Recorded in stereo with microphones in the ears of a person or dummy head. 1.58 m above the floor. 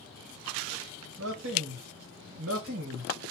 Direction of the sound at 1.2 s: 80° right.